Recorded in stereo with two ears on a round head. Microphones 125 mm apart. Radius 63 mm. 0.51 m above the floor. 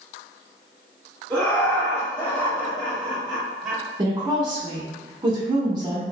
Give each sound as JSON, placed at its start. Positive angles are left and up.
{"t": 1.3, "sound": "laughter", "side_deg": 15, "distance_m": 1.1}
{"t": 4.0, "sound": "a woman speaking", "side_deg": -30, "distance_m": 0.7}